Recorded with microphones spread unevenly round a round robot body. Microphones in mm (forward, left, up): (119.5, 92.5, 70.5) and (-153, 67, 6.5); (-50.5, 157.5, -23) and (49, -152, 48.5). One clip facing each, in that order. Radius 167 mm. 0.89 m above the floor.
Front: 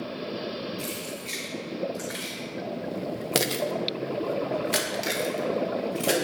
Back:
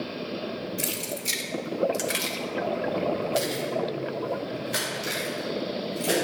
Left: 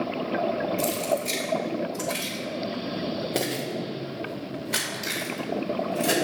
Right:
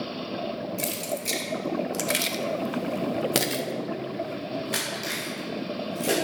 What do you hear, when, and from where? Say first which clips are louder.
0.8 s keys jangling: back 1 dB, left 5 dB; 140° right, 2 m; by 6.1 s 20° left, 3.5 m